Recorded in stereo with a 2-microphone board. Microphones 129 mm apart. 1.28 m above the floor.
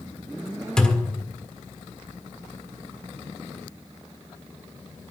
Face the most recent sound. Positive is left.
turn(degrees=5)  # may be behind; listen again after turning